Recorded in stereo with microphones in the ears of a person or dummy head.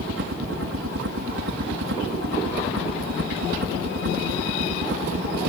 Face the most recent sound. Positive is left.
turn(degrees=-65)  # may be behind; listen again after turning